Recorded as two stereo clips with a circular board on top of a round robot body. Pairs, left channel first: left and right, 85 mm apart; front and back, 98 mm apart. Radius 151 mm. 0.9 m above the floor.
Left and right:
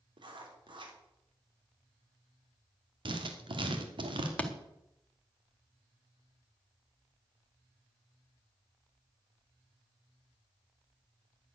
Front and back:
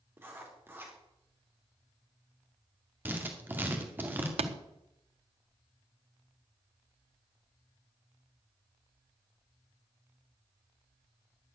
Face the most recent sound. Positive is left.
turn(degrees=165)